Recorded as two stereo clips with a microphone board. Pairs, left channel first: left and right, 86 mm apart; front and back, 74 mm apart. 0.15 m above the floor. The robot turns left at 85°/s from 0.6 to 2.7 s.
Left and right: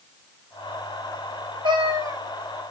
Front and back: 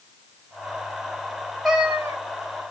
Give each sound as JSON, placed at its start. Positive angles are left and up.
{"t": 1.6, "sound": "a cat meowing", "azimuth_deg": -90, "distance_m": 2.0}